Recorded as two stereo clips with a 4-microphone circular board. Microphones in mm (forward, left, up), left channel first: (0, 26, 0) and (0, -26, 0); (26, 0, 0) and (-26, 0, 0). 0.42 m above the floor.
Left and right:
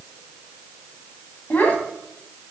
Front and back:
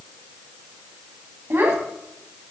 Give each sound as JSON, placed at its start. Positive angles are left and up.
{"t": 1.5, "sound": "a child speaking", "azimuth_deg": 145, "distance_m": 2.5}